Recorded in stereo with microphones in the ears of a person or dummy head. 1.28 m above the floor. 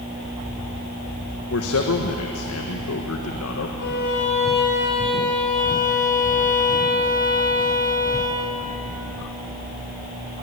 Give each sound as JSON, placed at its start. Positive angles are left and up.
{"t": 1.5, "sound": "a man speaking", "side_deg": 70, "distance_m": 1.4}
{"t": 3.8, "sound": "a violin", "side_deg": 55, "distance_m": 4.0}